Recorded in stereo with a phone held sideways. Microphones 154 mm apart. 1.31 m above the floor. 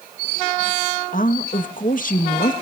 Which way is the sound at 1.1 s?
60° left (ahead or behind).